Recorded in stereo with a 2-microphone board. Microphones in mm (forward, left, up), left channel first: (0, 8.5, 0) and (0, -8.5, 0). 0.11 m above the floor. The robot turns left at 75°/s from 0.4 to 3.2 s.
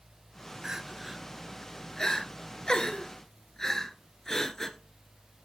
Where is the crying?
35° right (ahead or behind), 1.2 m; by 4.8 s 30° left (ahead or behind), 1.2 m.